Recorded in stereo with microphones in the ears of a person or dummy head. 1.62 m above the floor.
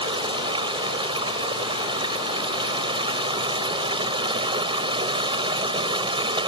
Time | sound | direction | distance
0.0 | running water | 25° right (ahead or behind) | ?